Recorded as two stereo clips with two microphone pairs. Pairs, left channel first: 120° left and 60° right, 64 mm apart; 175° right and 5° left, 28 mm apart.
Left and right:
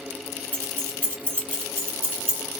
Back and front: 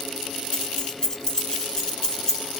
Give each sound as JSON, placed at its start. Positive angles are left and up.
{"t": 0.5, "sound": "keys jangling", "azimuth_deg": 160, "distance_m": 1.1}